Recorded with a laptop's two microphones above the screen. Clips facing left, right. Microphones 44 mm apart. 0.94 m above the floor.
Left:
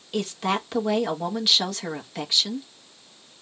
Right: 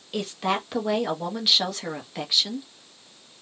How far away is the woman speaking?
About 1.3 m.